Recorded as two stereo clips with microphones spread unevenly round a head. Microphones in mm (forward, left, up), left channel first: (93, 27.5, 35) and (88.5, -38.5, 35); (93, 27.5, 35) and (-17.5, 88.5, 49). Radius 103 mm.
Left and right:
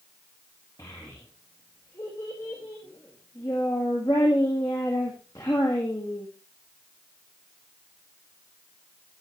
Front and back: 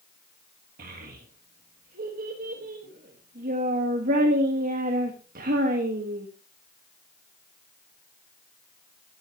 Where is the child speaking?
155° left, 1.6 m.